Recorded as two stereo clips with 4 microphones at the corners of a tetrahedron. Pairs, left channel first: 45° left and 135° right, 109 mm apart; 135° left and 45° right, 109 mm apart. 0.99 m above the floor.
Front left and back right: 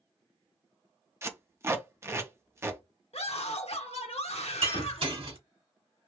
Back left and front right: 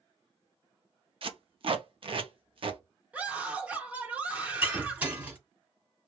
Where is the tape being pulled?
75° right, 0.6 m.